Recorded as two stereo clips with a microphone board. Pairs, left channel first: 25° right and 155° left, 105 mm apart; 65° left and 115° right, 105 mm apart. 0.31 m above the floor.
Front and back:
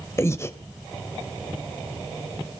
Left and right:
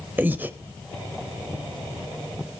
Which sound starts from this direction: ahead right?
Breathing, at 0.2 s.